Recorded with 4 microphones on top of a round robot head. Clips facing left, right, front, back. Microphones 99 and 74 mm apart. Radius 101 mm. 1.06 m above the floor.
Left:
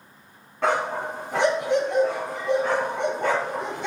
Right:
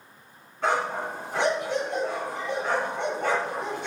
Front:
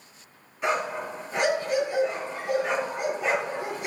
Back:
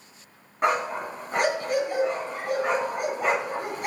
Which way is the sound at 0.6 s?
135° left.